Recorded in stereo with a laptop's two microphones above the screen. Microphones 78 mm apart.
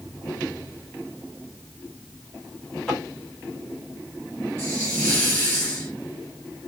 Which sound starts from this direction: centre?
Tapping, at 2.9 s.